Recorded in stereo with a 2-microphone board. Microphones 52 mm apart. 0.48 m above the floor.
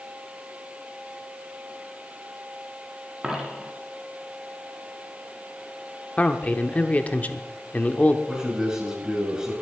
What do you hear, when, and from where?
3.2 s a dropped coin: 10° right (ahead or behind), 2.5 m
6.2 s a man speaking: 25° left (ahead or behind), 0.9 m
8.3 s a man speaking: 10° right (ahead or behind), 7.5 m